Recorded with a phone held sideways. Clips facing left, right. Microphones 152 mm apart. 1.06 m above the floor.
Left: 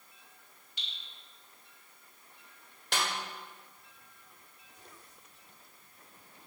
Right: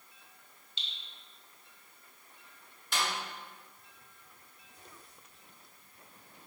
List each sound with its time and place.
0.8 s dripping: 25° right (ahead or behind), 1.6 m
2.9 s a snare drum: 70° left (ahead or behind), 1.9 m